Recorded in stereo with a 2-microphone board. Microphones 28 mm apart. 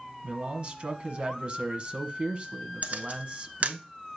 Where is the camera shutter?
55° right (ahead or behind), 0.9 m.